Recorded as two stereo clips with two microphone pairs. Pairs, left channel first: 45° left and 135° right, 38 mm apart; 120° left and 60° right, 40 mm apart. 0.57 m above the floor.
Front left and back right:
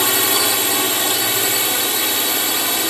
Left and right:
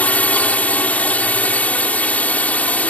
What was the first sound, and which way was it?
A drone, 130° left.